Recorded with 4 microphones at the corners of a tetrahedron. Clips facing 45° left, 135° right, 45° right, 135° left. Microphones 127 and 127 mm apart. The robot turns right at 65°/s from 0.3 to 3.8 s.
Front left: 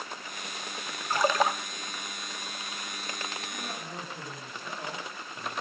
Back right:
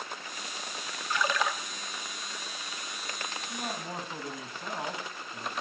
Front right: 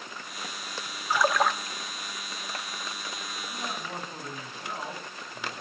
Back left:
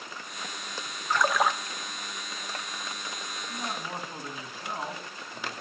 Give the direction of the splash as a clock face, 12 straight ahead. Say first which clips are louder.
Front left 4 dB, front right 1 dB; 11 o'clock.